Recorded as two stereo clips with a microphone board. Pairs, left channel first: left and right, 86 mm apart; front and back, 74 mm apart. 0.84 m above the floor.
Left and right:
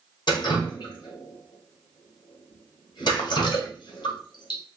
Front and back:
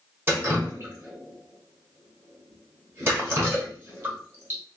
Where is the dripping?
120° left, 1.4 m.